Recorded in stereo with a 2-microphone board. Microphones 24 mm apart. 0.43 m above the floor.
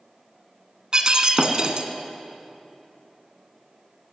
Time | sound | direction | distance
0.9 | breaking glass | 35° right (ahead or behind) | 1.7 m